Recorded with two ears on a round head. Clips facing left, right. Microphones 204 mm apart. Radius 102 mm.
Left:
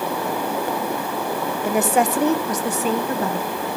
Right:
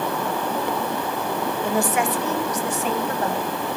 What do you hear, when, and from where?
1.6 s a woman speaking: 5° left (ahead or behind), 0.9 m; by 3.5 s 80° left, 2 m